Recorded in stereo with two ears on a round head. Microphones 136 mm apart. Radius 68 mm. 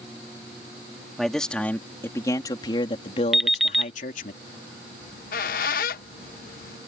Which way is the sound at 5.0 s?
65° left (ahead or behind).